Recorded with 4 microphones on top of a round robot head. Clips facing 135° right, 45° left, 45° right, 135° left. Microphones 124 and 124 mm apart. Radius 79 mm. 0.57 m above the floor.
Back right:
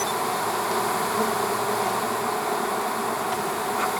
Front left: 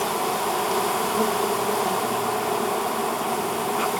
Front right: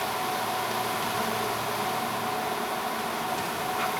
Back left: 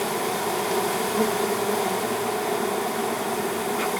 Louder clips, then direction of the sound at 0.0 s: Front left 1 dB, back left 4 dB; 120° left.